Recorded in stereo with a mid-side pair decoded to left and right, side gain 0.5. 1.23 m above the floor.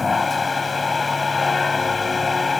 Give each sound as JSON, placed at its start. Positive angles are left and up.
{"t": 0.0, "sound": "a machine running", "azimuth_deg": 30}